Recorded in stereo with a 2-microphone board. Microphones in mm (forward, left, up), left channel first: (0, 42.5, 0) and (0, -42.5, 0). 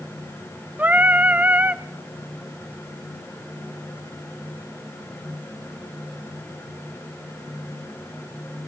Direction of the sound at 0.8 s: 20° right (ahead or behind).